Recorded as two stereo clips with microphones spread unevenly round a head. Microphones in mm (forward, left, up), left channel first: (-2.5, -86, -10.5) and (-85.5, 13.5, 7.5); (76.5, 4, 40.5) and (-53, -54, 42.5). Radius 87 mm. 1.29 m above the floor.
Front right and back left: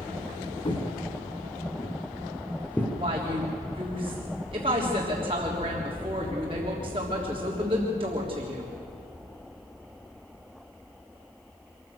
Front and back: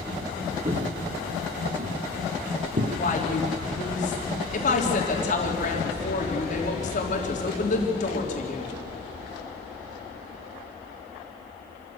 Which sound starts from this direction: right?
Footsteps, at 0.7 s.